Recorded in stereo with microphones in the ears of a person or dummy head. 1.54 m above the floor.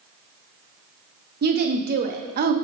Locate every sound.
1.4 s a woman speaking: 50° right (ahead or behind), 0.9 m